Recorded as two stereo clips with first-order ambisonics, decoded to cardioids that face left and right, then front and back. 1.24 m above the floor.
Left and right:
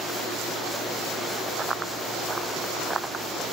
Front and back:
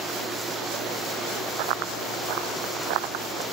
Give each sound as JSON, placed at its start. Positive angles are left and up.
{"t": 1.6, "sound": "running footsteps", "azimuth_deg": -165}